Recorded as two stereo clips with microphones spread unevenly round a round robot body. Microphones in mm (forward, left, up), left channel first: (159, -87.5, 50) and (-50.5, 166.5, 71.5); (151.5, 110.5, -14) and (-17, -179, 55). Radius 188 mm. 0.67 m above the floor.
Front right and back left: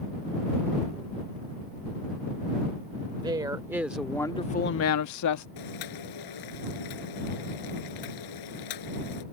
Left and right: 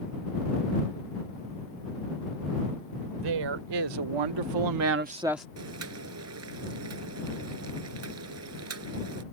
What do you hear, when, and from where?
3.2 s a woman speaking: 150° right; by 5.5 s 25° right
5.6 s boiling: 75° right